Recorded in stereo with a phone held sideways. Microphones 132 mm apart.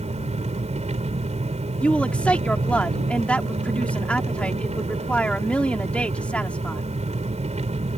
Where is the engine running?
60° right (ahead or behind).